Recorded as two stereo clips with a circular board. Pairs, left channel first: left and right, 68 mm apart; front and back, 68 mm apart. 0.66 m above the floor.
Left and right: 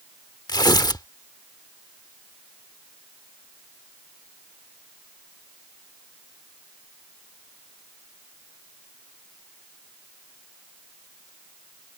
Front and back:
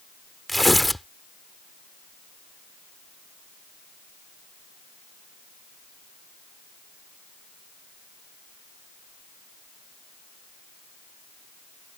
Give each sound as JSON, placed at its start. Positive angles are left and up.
{"t": 0.5, "sound": "tearing paper", "azimuth_deg": 90}